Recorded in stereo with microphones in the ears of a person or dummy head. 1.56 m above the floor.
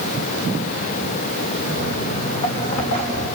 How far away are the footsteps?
About 6 m.